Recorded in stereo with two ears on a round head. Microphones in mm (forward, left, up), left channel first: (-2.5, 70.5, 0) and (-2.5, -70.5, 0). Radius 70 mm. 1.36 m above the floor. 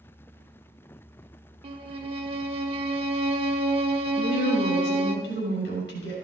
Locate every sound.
1.6 s a violin: 35° right (ahead or behind), 1.1 m
4.2 s a woman speaking: 90° left, 7 m